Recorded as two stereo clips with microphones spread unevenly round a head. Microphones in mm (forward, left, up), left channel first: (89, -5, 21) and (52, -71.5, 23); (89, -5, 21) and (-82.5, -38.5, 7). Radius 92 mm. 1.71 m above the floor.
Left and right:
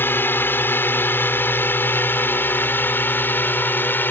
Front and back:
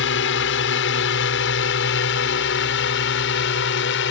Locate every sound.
0.0 s a drone: straight ahead